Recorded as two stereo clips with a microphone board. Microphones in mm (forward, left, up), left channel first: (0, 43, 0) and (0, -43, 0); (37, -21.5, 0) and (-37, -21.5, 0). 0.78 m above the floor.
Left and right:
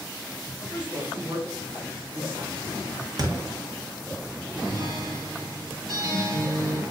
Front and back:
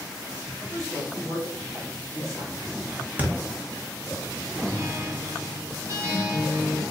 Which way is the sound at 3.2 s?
115° right.